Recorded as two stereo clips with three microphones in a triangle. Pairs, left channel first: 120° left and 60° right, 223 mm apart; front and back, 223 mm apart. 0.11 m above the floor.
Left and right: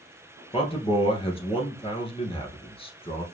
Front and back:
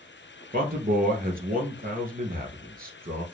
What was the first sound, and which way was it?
A man speaking, 170° left.